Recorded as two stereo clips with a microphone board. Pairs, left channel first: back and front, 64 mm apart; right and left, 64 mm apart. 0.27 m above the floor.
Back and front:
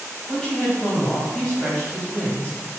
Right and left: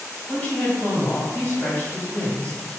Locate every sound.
0.3 s a woman speaking: 125° right, 1.6 m